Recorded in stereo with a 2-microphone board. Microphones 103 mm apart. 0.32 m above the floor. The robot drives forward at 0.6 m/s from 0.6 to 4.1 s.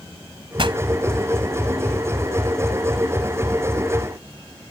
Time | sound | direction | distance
0.6 | a pop | 60° right (ahead or behind) | ?